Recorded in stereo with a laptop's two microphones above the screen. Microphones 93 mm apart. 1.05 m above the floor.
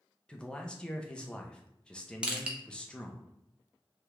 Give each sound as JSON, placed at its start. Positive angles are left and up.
{"t": 0.3, "sound": "a man speaking", "side_deg": 10, "distance_m": 0.5}
{"t": 2.2, "sound": "crushing", "side_deg": -10, "distance_m": 0.8}